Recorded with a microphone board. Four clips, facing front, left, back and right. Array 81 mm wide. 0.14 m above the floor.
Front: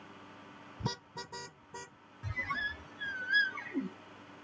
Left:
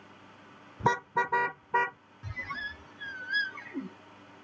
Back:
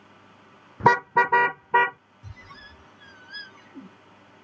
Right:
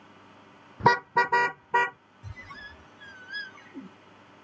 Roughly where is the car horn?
Behind.